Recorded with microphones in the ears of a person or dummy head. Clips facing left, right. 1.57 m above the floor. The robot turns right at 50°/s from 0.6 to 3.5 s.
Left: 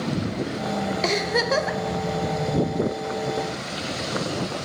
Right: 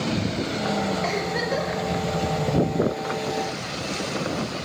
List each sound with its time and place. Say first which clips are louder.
1.0 s a giggle: left 2 dB; 55° left, 0.7 m; by 1.8 s 90° left, 0.7 m